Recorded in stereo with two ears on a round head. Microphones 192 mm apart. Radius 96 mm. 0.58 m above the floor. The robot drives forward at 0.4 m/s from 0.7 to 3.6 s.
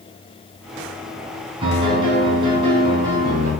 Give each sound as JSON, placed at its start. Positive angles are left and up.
{"t": 1.6, "sound": "a piano", "side_deg": -25, "distance_m": 3.0}